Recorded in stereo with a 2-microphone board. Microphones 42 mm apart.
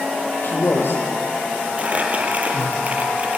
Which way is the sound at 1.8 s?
35° right (ahead or behind).